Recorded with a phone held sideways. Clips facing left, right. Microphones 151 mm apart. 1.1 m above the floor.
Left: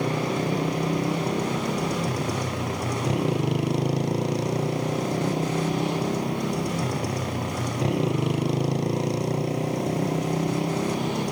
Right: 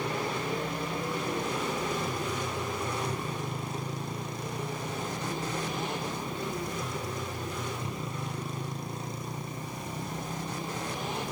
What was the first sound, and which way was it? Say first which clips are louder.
A motorcycle: left 7 dB; 80° left.